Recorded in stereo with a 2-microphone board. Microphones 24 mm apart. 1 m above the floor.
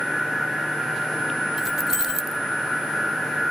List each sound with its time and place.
1.6 s keys jangling: 10° right (ahead or behind), 0.6 m